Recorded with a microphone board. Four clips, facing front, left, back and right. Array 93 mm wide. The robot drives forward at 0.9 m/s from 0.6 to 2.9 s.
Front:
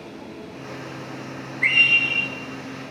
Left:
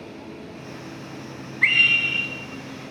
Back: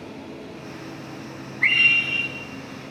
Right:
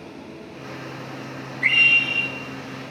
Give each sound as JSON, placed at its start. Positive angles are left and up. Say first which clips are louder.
{"t": 1.6, "sound": "a scream", "louder": "even, even", "azimuth_deg": 95, "distance_m": 4.5}